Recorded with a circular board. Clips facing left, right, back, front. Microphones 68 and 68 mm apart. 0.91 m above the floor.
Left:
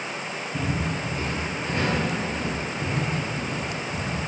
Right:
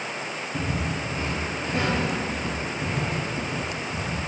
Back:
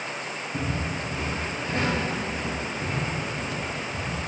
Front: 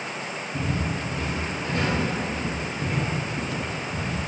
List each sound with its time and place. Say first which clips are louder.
0.5 s footsteps: left 1 dB, front 2 dB; straight behind, 1.3 m; by 4.1 s 10° right, 1.2 m